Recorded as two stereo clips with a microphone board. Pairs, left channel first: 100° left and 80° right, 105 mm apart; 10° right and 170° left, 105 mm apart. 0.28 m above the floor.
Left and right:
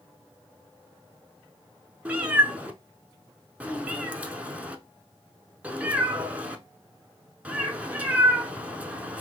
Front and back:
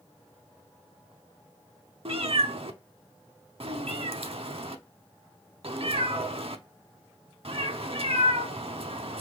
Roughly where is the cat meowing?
Behind right.